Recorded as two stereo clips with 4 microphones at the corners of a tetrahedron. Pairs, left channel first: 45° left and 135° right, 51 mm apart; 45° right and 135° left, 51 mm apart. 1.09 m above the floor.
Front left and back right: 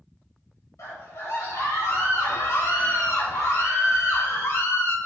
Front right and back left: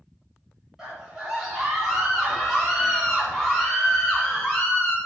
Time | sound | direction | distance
0.8 | a scream | 55° left | 5.5 m